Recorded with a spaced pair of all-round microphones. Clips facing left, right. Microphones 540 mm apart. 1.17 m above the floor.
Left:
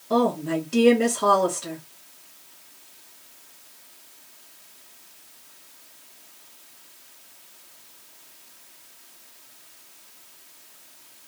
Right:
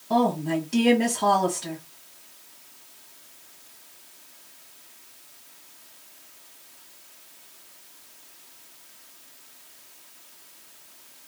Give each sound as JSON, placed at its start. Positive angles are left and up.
{"t": 0.1, "sound": "a woman speaking", "side_deg": -10, "distance_m": 2.0}